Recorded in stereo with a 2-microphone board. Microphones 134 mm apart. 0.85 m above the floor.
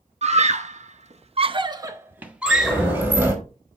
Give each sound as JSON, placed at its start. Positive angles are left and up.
{"t": 0.2, "sound": "a scream", "side_deg": -55, "distance_m": 0.9}
{"t": 2.5, "sound": "a sliding door", "side_deg": -15, "distance_m": 2.0}